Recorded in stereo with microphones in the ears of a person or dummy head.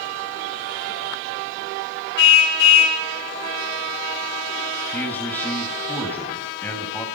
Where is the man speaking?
10° left (ahead or behind), 7 m.